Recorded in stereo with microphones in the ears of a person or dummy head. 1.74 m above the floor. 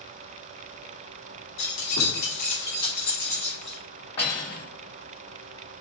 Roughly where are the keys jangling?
Left.